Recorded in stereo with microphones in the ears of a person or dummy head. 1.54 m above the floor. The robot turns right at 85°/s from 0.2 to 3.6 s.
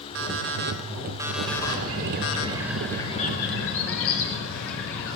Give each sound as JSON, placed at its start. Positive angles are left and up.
{"t": 0.1, "sound": "an alarm clock", "azimuth_deg": -100, "distance_m": 2.5}
{"t": 1.5, "sound": "a bird", "azimuth_deg": -110, "distance_m": 5.5}